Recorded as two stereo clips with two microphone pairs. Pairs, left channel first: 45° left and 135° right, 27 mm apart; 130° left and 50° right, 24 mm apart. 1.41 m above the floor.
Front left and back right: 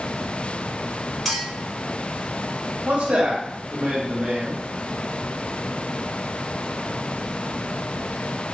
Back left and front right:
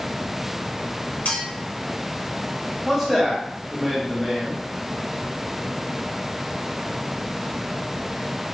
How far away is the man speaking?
About 1.0 m.